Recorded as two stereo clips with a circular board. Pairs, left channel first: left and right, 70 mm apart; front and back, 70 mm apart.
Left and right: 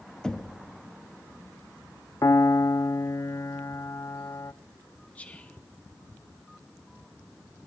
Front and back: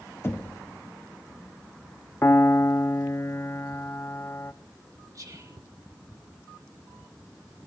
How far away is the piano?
About 0.5 m.